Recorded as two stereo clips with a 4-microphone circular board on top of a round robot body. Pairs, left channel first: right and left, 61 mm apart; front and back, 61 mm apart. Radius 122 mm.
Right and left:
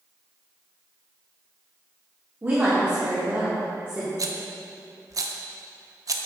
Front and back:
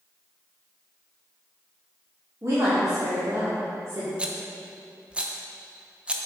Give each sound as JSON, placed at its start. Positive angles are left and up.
{"t": 2.4, "sound": "a woman speaking", "azimuth_deg": 145, "distance_m": 1.8}
{"t": 4.2, "sound": "a rattle", "azimuth_deg": 105, "distance_m": 0.8}